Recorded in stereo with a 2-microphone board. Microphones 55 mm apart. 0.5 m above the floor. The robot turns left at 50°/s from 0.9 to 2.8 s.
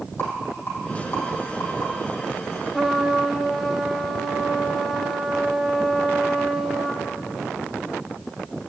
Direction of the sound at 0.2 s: 45° left (ahead or behind).